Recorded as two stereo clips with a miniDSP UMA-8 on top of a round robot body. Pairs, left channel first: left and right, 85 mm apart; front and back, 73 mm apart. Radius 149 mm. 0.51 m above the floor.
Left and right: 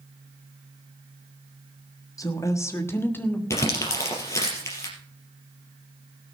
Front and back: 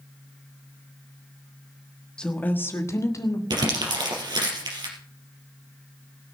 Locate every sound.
2.2 s a woman speaking: 75° left, 1.5 m; by 3.4 s 25° left, 2 m
3.5 s crumpling: 150° left, 3.5 m